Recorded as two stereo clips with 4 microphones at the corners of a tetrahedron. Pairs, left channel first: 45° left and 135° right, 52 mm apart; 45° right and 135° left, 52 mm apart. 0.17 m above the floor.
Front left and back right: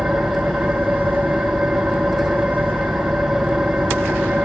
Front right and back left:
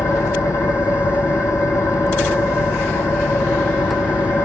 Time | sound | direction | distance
0.0 | an engine running | 45° right | 2 m